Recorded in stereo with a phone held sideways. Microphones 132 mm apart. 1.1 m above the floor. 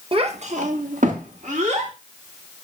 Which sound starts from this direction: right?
A child speaking, at 0.1 s.